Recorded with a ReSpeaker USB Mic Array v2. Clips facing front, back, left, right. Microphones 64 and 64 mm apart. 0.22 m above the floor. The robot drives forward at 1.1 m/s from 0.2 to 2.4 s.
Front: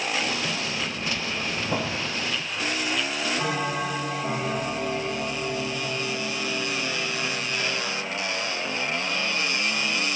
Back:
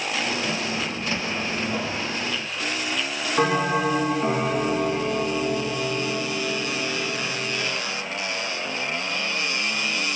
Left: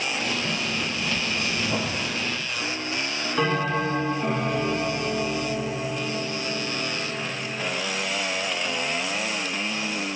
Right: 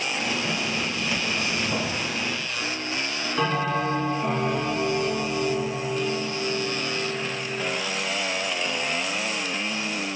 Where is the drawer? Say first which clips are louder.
Back 1 dB, even; straight ahead, 6 m.